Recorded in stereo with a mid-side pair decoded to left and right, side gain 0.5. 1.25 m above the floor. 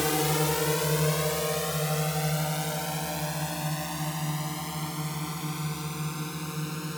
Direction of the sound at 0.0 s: 5° left.